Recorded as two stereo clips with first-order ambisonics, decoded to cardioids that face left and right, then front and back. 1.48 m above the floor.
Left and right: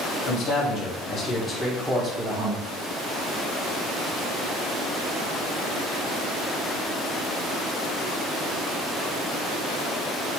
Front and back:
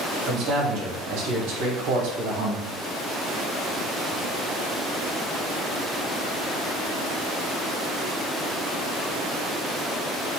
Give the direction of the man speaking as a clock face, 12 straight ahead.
8 o'clock.